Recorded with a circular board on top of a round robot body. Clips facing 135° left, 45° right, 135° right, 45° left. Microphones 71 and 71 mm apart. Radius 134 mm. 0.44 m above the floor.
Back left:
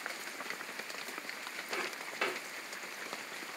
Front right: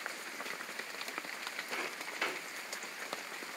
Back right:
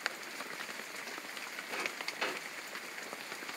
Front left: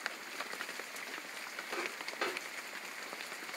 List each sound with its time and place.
1.7 s footsteps: 95° left, 3.5 m